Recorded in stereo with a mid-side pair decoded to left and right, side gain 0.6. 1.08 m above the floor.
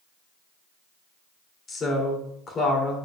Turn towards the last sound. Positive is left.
turn(degrees=35)